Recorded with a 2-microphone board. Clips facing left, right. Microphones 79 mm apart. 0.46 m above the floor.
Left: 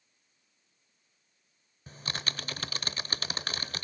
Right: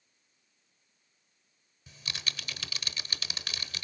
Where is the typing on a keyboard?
40° left (ahead or behind), 0.8 m.